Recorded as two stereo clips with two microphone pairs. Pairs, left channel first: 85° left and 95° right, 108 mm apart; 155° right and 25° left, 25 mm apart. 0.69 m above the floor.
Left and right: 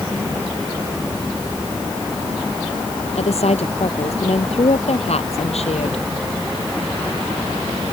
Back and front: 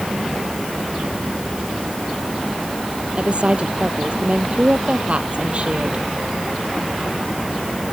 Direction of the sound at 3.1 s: 70° left.